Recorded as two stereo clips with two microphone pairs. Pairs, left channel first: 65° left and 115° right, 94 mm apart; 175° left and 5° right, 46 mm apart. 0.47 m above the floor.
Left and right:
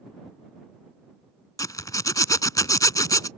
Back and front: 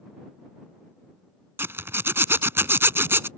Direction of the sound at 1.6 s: 15° left.